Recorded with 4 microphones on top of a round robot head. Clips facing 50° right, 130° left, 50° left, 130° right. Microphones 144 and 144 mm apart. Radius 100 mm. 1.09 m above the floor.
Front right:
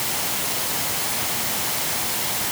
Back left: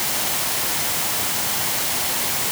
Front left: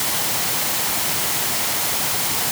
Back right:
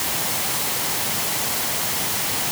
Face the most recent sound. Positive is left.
No sound to turn to.